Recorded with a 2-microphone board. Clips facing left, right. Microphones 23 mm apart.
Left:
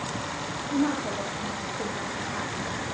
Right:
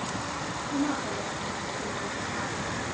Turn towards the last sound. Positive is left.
turn(degrees=75)  # may be behind; listen again after turning